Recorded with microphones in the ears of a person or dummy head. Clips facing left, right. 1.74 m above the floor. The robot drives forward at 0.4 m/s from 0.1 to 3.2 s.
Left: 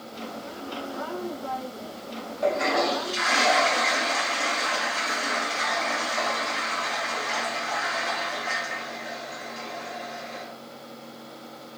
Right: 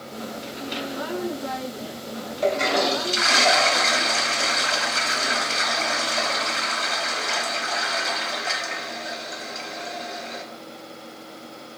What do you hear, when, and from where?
2.4 s a toilet flushing: 40° right (ahead or behind), 1.0 m; by 10.4 s 55° right (ahead or behind), 0.8 m